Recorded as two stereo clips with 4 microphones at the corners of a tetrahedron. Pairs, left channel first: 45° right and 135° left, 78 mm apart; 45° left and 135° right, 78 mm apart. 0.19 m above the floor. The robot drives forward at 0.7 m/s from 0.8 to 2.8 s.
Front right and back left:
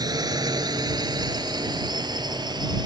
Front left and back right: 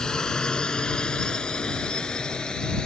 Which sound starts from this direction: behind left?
A drone, at 0.0 s.